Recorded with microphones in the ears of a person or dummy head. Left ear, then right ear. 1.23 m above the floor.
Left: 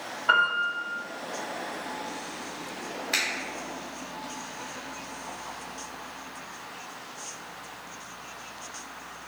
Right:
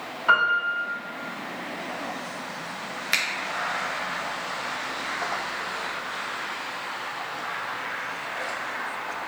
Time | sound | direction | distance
0.3 | a piano | 65° right (ahead or behind) | 1.7 m
3.1 | a finger snap | 50° right (ahead or behind) | 0.6 m